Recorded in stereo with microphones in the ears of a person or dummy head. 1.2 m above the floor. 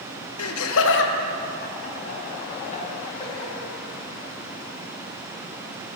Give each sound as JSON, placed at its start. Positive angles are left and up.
{"t": 0.4, "sound": "laughter", "side_deg": 85, "distance_m": 0.7}